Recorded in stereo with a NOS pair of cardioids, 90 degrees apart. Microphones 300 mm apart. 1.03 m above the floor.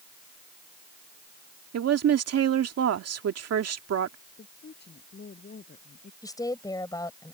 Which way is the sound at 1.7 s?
55° right.